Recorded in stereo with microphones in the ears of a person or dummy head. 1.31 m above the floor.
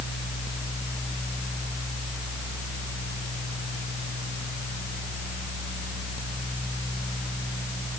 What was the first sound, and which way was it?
Only background noise.